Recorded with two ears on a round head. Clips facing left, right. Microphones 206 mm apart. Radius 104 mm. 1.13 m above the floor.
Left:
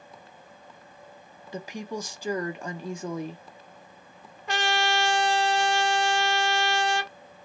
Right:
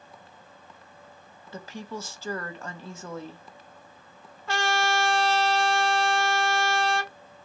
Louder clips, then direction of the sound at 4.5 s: Even; 15° left (ahead or behind).